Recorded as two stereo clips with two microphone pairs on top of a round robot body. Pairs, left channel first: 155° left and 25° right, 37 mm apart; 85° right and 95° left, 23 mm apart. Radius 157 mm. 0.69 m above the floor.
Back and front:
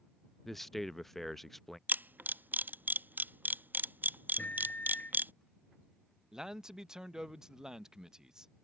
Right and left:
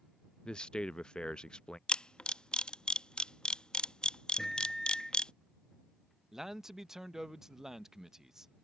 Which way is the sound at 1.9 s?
40° right.